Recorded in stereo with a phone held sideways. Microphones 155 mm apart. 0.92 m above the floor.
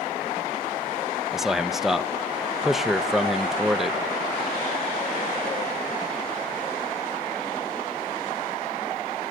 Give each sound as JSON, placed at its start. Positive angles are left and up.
{"t": 1.3, "sound": "a man speaking", "side_deg": 0, "distance_m": 0.6}